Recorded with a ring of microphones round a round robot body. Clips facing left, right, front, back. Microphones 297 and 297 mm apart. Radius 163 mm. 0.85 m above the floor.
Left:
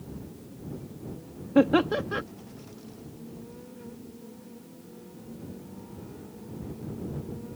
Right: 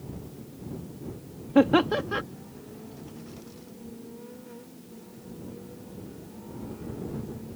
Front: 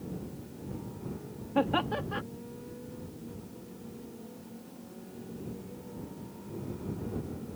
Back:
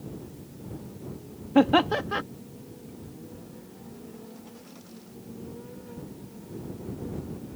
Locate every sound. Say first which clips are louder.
1.6 s laughter: right 1 dB, back 9 dB; straight behind